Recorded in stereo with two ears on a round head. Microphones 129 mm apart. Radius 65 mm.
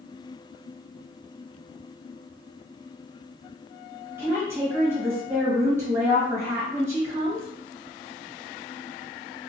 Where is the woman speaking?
20° right (ahead or behind), 1.4 m.